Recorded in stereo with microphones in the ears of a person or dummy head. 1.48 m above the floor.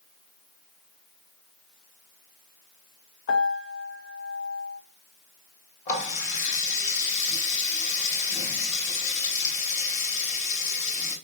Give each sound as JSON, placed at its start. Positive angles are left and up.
{"t": 3.3, "sound": "a piano", "side_deg": 70, "distance_m": 0.6}
{"t": 5.9, "sound": "a running tap", "side_deg": 50, "distance_m": 1.4}